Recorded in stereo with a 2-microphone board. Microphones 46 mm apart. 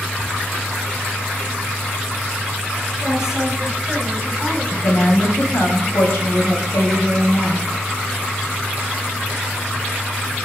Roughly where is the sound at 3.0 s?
Centre.